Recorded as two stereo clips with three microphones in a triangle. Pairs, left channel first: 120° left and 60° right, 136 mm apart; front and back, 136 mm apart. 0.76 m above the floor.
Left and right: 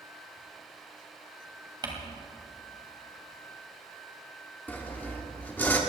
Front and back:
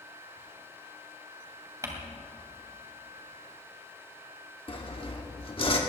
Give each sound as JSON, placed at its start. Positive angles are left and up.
{"t": 1.8, "sound": "crumpling", "azimuth_deg": -115, "distance_m": 2.5}
{"t": 4.7, "sound": "sawing", "azimuth_deg": 45, "distance_m": 1.7}